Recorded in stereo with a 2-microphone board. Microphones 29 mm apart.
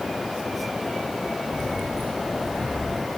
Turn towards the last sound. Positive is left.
turn(degrees=-80)